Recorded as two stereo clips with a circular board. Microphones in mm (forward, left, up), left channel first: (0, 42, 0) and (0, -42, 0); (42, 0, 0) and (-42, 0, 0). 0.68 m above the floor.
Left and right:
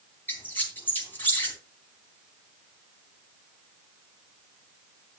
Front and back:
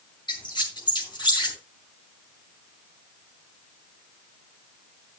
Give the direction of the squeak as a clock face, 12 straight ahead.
11 o'clock.